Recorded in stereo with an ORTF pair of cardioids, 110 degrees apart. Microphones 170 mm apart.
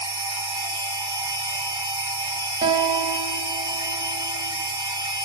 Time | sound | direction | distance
0.0 | a machine running | 25° right | 0.9 m
2.6 | a guitar | 40° right | 0.8 m